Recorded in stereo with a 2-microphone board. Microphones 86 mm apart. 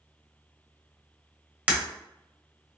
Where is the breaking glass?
15° right (ahead or behind), 0.8 m.